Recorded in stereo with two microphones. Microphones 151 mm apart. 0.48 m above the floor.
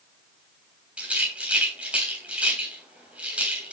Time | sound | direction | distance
1.0 | a rattle | 10° right (ahead or behind) | 3 m